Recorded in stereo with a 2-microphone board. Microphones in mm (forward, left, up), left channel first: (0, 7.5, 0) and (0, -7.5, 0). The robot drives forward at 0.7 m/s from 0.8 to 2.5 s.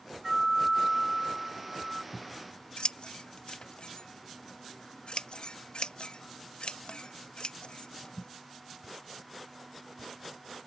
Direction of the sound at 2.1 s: 65° left (ahead or behind).